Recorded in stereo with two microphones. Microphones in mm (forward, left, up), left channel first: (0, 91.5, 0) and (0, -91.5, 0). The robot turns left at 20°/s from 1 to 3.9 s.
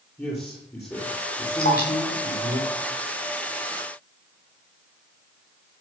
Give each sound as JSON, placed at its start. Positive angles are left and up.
{"t": 0.2, "sound": "a man speaking", "azimuth_deg": 165, "distance_m": 6.5}
{"t": 1.6, "sound": "dripping", "side_deg": 60, "distance_m": 7.5}